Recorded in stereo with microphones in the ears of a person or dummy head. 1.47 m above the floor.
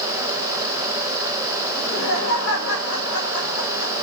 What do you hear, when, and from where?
1.8 s laughter: 85° left, 2 m